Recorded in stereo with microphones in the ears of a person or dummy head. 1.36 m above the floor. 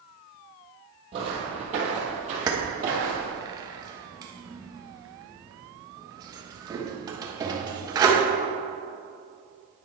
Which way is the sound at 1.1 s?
30° right (ahead or behind).